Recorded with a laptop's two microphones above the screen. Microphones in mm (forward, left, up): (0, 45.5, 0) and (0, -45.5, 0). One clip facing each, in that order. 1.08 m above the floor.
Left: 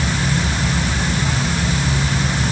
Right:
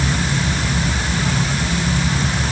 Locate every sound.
Only background noise.